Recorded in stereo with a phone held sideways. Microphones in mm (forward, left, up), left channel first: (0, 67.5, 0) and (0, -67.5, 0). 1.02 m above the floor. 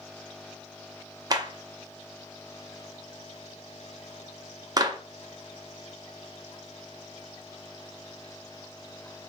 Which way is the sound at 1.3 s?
30° right (ahead or behind).